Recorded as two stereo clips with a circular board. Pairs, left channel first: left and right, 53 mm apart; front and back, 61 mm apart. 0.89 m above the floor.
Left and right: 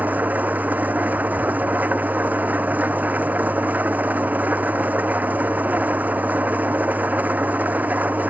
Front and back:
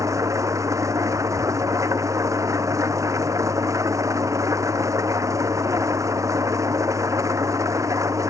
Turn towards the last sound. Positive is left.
turn(degrees=-150)